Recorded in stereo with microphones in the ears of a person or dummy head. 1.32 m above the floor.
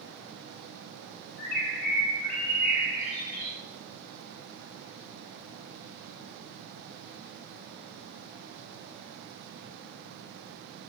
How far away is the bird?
About 4 m.